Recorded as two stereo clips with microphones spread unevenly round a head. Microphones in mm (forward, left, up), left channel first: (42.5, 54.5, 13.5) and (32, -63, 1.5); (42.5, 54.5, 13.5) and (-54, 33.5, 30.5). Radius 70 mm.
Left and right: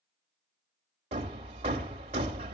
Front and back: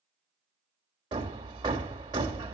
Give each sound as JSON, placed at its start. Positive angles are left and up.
{"t": 1.1, "sound": "hammering", "azimuth_deg": -135, "distance_m": 1.1}